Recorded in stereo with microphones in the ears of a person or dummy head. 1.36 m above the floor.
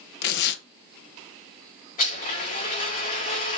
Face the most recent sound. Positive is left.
turn(degrees=45)  # may be behind; listen again after turning